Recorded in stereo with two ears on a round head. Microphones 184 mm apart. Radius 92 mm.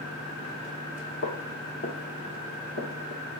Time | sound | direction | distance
1.2 | footsteps | 50° left (ahead or behind) | 1.7 m